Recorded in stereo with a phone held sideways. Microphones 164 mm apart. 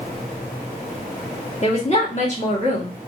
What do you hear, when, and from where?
1.6 s a woman speaking: 45° left (ahead or behind), 1.5 m